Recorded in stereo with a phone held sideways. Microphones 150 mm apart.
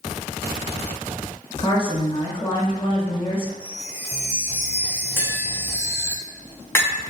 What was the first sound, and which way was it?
A woman speaking, 35° left (ahead or behind).